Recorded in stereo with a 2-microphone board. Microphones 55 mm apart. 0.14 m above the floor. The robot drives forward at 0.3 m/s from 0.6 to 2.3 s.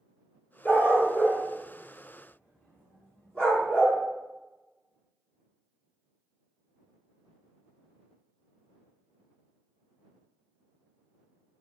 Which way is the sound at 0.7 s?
35° left (ahead or behind).